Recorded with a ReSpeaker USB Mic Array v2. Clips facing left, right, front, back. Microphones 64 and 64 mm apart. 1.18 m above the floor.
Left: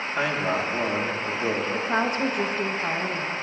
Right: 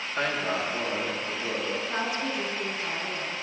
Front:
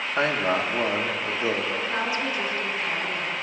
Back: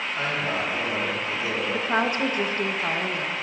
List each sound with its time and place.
0.2 s a man speaking: 10° left, 1.4 m; by 1.6 s 40° left, 1.8 m
1.7 s a woman speaking: 135° left, 1.1 m